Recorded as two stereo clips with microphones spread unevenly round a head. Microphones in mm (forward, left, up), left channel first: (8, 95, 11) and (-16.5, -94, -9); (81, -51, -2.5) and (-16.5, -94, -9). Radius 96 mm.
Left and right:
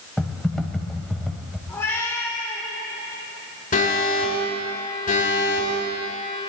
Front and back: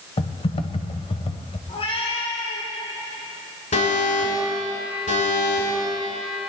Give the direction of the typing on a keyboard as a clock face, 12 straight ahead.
12 o'clock.